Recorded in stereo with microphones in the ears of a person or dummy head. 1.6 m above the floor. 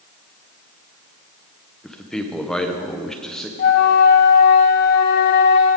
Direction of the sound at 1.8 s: Centre (ahead or behind).